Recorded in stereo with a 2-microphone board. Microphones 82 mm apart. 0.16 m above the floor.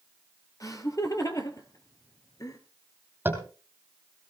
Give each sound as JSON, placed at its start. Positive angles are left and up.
{"t": 0.6, "sound": "laughter", "side_deg": 45, "distance_m": 3.5}
{"t": 3.2, "sound": "tapping", "side_deg": -25, "distance_m": 3.5}